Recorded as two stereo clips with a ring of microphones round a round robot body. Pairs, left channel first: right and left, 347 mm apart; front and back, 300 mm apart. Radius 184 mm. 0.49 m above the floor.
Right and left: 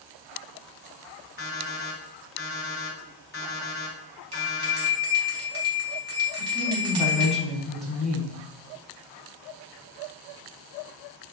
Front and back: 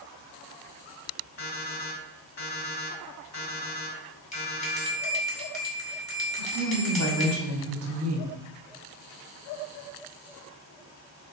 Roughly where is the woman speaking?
Behind.